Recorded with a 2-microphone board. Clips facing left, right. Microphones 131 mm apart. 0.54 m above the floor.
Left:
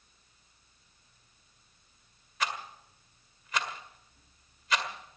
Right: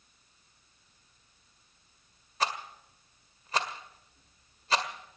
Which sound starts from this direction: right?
A rattle, at 2.4 s.